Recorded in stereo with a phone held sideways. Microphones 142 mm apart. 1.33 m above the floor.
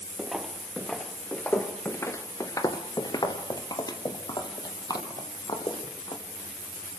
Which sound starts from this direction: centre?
Footsteps, at 0.2 s.